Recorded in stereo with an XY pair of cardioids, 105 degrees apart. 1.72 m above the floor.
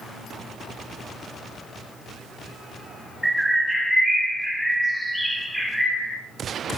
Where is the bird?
Straight ahead, 0.9 m.